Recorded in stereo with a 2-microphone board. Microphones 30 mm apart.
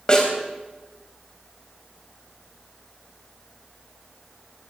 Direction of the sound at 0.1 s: 25° left (ahead or behind).